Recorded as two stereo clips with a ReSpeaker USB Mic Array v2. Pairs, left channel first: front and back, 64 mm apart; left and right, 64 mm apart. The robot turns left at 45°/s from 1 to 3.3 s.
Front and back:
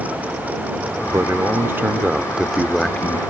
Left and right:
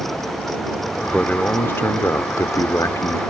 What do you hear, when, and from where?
1.0 s a man speaking: 165° left; by 3.2 s 70° left